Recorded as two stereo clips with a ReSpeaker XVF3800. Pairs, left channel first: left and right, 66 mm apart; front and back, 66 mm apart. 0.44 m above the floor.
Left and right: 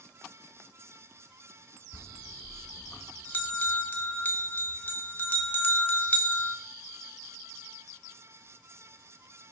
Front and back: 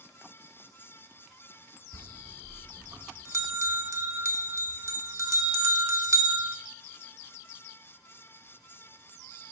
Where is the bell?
145° left, 0.5 m.